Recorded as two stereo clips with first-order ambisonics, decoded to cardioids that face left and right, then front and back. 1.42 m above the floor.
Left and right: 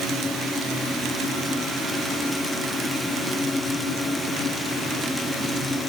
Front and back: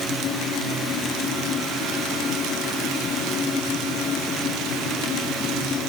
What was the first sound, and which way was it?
Only background noise.